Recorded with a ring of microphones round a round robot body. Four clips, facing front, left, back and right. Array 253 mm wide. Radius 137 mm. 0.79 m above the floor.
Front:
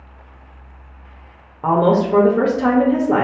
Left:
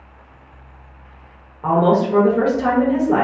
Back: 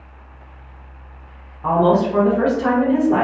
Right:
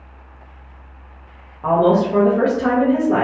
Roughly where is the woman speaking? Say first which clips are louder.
Right 1 dB, even; ahead.